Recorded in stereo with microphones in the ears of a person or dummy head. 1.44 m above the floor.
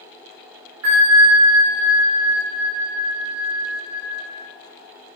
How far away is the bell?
About 2.0 m.